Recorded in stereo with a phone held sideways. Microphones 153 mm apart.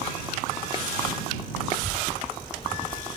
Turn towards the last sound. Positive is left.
turn(degrees=-15)  # may be behind; listen again after turning